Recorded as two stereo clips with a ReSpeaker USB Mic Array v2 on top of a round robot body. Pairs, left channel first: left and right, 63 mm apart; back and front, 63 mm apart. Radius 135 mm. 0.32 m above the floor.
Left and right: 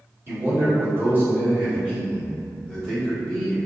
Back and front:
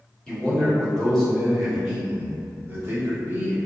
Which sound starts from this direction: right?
A man speaking, at 0.3 s.